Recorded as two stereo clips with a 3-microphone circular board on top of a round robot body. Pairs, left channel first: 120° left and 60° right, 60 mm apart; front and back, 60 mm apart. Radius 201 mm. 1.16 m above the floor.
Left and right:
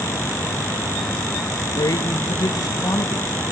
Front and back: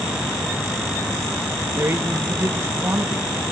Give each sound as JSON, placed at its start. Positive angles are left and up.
{"t": 1.8, "sound": "a man speaking", "azimuth_deg": 130, "distance_m": 1.8}